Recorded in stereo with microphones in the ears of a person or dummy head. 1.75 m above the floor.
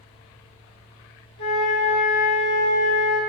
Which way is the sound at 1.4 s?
70° left (ahead or behind).